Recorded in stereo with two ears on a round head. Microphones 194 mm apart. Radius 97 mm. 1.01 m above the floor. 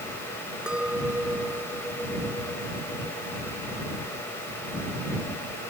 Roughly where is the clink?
Centre.